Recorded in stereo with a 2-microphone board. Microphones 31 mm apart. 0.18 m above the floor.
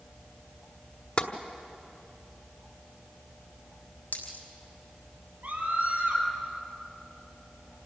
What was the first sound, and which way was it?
Tapping, 40° left (ahead or behind).